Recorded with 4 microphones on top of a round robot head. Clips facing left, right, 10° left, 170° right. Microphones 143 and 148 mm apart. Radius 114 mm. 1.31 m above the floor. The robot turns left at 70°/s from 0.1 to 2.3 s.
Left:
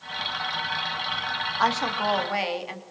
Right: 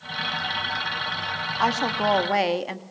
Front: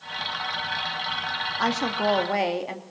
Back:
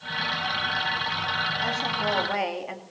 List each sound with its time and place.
1.6 s a woman speaking: 5° right, 2.5 m; by 2.8 s 55° right, 2.5 m